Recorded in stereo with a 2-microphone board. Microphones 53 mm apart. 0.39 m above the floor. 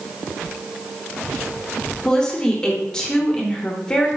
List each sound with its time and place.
2.0 s a woman speaking: 15° left (ahead or behind), 0.9 m